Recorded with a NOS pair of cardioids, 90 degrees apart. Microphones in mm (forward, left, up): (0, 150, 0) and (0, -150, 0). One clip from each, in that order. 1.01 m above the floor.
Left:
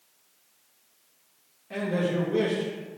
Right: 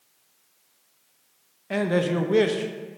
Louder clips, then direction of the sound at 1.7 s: Right 4 dB; 50° right.